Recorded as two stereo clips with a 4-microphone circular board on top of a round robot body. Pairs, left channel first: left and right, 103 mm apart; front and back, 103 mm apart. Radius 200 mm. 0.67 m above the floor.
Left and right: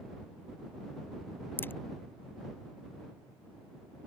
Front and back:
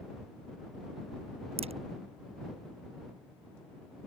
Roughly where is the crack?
Behind.